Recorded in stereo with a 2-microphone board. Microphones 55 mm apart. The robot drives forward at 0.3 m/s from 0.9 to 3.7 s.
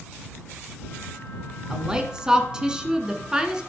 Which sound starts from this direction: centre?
A woman speaking, at 1.7 s.